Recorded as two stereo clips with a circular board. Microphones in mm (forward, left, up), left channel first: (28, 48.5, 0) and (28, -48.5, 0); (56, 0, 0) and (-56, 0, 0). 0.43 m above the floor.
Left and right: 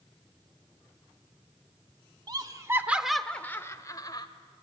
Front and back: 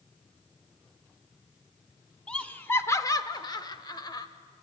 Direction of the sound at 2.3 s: 80° right.